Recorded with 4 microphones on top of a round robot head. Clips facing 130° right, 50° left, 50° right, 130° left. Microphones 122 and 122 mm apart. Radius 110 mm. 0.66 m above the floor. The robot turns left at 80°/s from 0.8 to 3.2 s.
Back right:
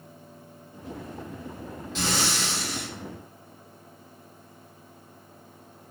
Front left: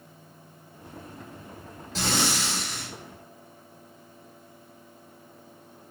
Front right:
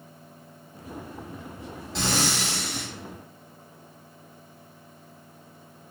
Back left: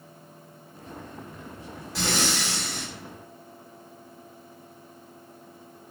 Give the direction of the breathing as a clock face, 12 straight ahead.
12 o'clock.